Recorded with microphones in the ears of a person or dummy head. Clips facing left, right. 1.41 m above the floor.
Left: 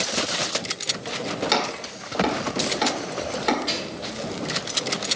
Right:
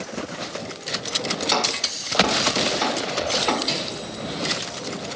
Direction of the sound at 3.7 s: 5° left (ahead or behind).